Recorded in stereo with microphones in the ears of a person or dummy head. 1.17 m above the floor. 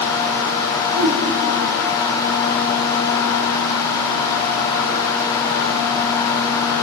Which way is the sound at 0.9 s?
80° right.